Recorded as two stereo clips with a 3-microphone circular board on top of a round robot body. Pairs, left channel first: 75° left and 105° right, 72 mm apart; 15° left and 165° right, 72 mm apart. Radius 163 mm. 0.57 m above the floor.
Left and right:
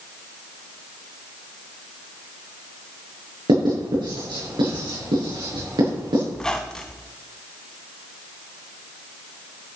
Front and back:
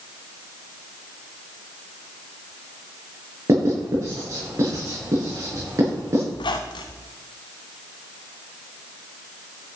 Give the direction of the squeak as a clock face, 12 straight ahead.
12 o'clock.